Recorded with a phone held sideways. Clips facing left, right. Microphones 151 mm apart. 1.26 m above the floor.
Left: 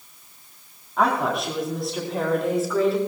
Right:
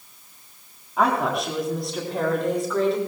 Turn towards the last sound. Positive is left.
turn(degrees=5)  # may be behind; listen again after turning